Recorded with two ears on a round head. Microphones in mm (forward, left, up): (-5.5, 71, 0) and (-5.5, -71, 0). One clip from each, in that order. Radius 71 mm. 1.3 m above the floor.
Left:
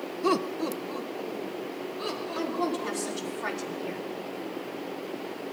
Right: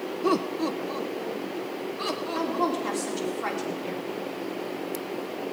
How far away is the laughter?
About 0.5 m.